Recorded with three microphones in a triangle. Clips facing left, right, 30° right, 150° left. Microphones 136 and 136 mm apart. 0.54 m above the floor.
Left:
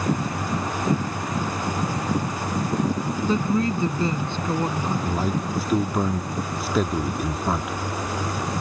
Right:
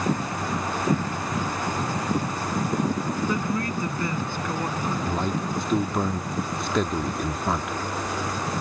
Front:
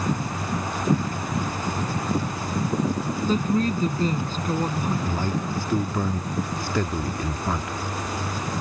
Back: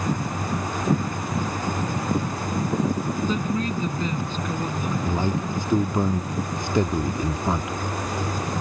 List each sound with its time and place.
3.2 s a woman speaking: 20° left
5.0 s a man speaking: 170° left